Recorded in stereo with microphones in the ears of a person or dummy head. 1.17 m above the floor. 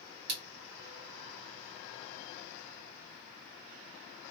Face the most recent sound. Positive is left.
turn(degrees=-60)  # may be behind; listen again after turning